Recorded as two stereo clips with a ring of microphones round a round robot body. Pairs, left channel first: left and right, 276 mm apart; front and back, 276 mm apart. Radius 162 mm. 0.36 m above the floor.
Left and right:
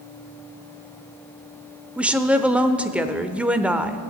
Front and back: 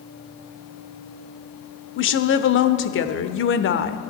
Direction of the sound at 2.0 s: 5° right.